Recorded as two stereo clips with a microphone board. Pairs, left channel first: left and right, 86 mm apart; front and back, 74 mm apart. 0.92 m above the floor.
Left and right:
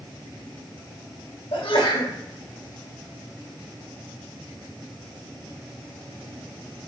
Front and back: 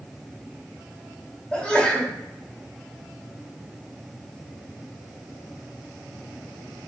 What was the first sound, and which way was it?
A sneeze, 80° left.